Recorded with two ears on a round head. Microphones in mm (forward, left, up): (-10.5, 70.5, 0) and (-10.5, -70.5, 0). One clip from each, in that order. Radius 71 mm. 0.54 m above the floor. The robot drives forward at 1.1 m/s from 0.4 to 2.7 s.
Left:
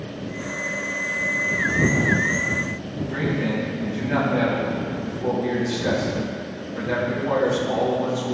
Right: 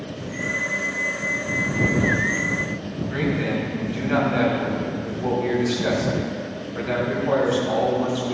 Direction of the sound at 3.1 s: 55° right (ahead or behind).